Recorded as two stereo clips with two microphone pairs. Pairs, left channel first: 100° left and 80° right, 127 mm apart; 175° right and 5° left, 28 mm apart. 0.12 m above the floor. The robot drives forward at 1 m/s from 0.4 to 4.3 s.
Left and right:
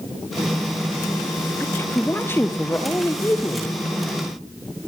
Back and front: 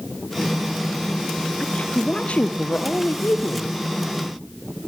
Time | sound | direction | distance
1.6 | a woman speaking | 160° left | 1.7 m